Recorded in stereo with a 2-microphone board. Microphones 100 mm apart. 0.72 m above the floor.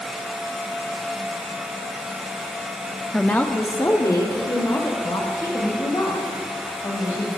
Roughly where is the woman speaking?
Centre.